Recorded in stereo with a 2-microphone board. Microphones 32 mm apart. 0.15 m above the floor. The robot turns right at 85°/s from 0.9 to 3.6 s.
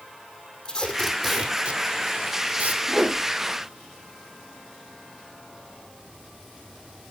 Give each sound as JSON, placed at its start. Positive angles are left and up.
{"t": 0.7, "sound": "tape being pulled", "side_deg": 25, "distance_m": 2.0}
{"t": 2.9, "sound": "a whoosh", "side_deg": -10, "distance_m": 6.5}